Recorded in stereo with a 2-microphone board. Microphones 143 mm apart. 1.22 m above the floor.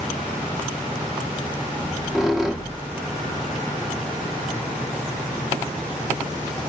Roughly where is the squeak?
Centre.